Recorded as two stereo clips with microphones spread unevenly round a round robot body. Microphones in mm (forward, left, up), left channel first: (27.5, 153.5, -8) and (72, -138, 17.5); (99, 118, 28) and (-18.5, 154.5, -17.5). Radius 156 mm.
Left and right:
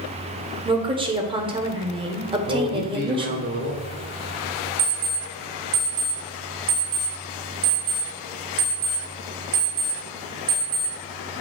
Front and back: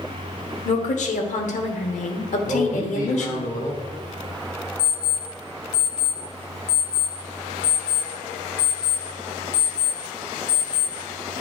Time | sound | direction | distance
0.7 | a woman speaking | 10° right | 1.1 m
2.4 | a man speaking | 100° right | 1.1 m
4.8 | an alarm clock | 60° right | 2.0 m